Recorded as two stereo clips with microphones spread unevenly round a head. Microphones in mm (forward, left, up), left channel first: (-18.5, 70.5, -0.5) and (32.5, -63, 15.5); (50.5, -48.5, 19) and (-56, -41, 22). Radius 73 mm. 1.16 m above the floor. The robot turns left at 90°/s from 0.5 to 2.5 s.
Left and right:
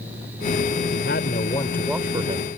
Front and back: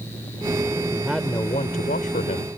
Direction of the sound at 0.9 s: 110° left.